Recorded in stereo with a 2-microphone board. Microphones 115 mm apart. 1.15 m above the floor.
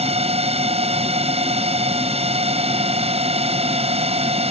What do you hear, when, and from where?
0.0 s a drone: 60° right (ahead or behind)